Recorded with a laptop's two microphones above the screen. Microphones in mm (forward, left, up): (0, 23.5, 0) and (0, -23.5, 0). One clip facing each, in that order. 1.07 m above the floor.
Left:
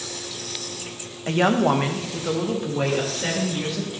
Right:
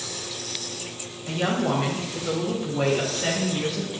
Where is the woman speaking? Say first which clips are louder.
Left 5 dB; 60° left (ahead or behind), 1.0 m; by 3.9 s 5° right (ahead or behind), 2 m.